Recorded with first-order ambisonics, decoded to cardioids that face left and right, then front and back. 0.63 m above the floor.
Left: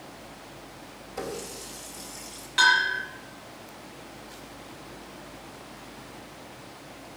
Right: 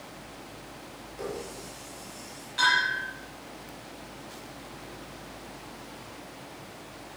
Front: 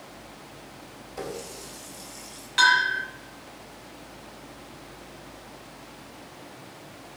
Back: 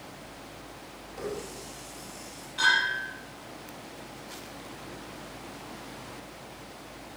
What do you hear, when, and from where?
1.2 s a running tap: 60° left, 2.5 m
2.6 s a bell: 35° left, 5 m